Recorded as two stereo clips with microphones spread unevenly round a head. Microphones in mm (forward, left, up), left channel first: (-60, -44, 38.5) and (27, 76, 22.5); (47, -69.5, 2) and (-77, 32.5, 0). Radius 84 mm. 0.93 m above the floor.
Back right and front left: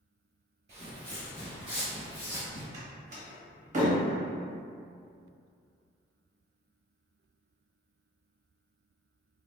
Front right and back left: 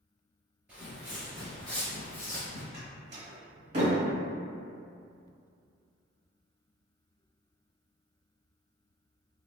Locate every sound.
0.7 s footsteps: 65° left, 1.0 m; by 2.6 s 95° right, 1.0 m
2.7 s a door slam: 90° left, 0.8 m